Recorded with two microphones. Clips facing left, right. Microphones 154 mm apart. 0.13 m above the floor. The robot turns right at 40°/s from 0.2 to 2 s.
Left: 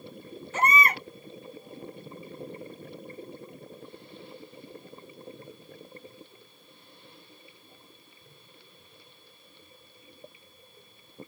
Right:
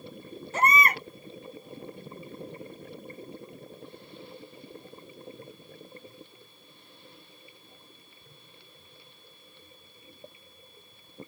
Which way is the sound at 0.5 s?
40° right (ahead or behind).